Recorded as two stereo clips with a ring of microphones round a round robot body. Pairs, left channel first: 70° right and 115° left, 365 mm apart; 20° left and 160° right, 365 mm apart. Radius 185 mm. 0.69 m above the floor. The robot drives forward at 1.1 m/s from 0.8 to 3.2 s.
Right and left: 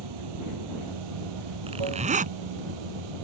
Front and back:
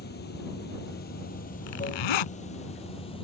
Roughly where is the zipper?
Ahead left.